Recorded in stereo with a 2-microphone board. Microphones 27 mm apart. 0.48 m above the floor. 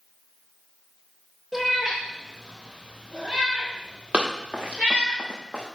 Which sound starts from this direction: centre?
A cat meowing, at 1.5 s.